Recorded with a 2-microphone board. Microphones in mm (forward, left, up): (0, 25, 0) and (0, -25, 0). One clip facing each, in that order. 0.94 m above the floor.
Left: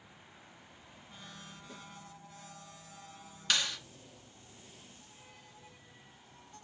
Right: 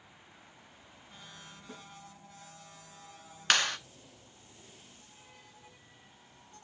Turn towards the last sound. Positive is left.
turn(degrees=-55)  # may be behind; listen again after turning